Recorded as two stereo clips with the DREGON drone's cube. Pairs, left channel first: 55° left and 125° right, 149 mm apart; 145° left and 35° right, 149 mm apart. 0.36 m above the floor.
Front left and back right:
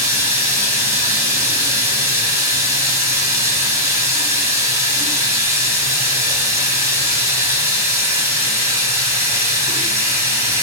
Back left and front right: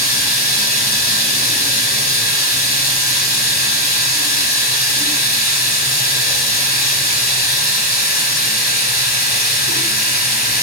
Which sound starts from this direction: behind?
Running water, at 0.0 s.